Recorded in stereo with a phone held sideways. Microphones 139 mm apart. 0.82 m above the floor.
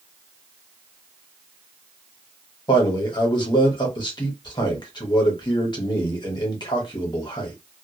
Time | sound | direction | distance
2.7 | a man speaking | 35° left (ahead or behind) | 1.2 m